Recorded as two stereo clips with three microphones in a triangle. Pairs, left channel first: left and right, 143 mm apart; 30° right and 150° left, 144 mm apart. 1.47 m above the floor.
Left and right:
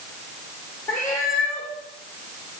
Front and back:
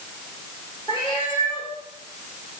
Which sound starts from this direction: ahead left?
A cat meowing, at 0.9 s.